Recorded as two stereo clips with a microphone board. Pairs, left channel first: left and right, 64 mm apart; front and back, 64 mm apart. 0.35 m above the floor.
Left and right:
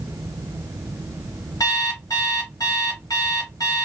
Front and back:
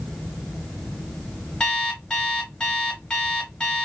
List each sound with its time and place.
1.6 s an alarm clock: 75° left, 1.9 m